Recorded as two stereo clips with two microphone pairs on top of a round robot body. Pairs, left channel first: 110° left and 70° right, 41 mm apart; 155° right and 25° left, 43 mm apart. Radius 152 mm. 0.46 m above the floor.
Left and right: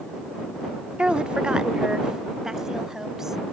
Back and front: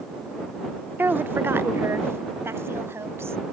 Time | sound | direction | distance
1.0 | a woman speaking | 15° right | ?